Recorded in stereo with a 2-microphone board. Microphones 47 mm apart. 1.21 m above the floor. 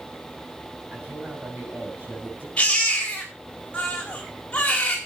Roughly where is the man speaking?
Right.